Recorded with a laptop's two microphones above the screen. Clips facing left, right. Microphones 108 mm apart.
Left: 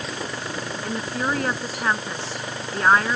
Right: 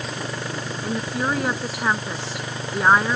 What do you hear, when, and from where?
0.8 s a woman speaking: 5° right (ahead or behind); by 3.1 s 10° right (ahead or behind)